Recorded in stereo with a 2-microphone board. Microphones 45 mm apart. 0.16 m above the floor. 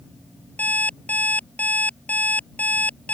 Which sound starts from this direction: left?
An alarm clock, at 0.6 s.